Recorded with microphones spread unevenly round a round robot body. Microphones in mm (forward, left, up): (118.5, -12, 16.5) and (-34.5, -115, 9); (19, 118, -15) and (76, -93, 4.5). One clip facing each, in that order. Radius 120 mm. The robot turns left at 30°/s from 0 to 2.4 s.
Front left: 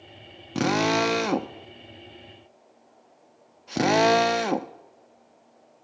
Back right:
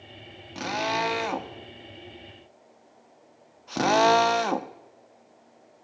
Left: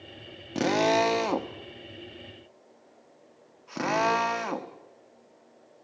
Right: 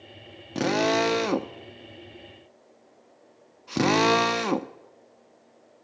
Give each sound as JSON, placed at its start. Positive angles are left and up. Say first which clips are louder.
{"t": 0.6, "sound": "a drill", "louder": "front left 7 dB, right 1 dB", "azimuth_deg": 20, "distance_m": 0.9}